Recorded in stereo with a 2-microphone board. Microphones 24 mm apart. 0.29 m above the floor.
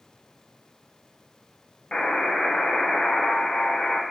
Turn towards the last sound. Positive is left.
turn(degrees=45)  # may be behind; listen again after turning